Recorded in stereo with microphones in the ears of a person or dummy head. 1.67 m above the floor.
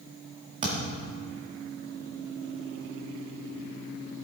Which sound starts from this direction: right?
A thud, at 0.6 s.